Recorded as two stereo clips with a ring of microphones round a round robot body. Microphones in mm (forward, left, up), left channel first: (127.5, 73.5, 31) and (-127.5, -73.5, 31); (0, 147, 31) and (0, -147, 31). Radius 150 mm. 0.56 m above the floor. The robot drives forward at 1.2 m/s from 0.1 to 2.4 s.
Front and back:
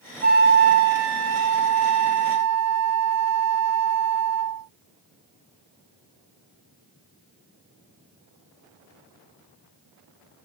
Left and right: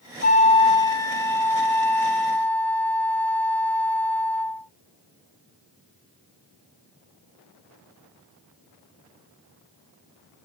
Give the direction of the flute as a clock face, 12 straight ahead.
7 o'clock.